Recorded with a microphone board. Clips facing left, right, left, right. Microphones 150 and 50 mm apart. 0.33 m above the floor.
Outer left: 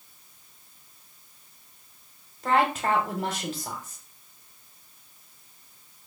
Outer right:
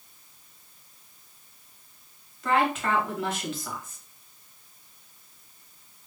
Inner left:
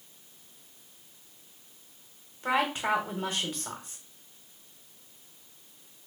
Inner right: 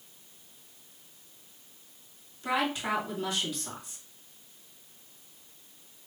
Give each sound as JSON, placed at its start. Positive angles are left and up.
{"t": 2.4, "sound": "a woman speaking", "side_deg": 35, "distance_m": 1.6}